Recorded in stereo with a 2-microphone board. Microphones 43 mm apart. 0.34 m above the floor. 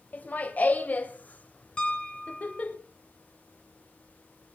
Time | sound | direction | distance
0.1 | laughter | 40° left (ahead or behind) | 1.8 m
1.8 | a piano | 25° left (ahead or behind) | 1.8 m